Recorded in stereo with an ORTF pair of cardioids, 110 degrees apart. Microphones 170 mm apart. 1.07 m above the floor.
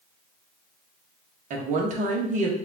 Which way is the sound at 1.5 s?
45° right.